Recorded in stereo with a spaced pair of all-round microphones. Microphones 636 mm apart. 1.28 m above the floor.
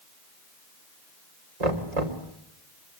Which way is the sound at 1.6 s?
85° right.